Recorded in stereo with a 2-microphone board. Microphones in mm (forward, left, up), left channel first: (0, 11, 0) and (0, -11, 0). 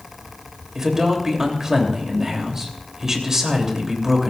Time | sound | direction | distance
0.8 | a man speaking | 25° right (ahead or behind) | 3 m